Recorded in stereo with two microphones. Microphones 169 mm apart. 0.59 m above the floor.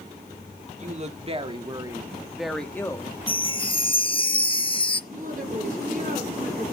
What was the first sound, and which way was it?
A woman speaking, 45° right (ahead or behind).